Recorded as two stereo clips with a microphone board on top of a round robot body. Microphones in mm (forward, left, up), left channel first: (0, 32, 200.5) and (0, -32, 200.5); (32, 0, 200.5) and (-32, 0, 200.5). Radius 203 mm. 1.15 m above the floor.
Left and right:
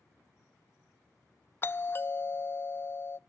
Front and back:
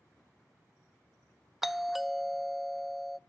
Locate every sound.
1.6 s a doorbell: 95° left, 0.5 m